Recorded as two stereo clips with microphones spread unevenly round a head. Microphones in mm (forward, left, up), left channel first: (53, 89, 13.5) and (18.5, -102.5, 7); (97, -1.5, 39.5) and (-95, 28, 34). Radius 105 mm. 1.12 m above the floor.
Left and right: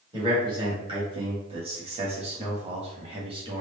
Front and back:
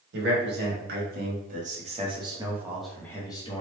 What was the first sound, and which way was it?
A man speaking, 170° right.